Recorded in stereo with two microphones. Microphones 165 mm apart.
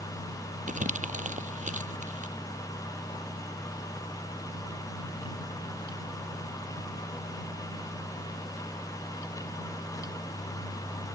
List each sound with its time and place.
0.7 s crumpling: 50° right (ahead or behind)